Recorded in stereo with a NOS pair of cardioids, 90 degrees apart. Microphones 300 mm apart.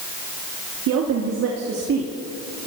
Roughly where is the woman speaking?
Right.